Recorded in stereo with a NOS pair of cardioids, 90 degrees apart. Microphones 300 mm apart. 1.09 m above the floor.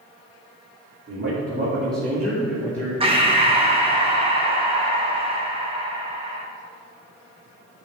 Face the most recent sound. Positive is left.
turn(degrees=-20)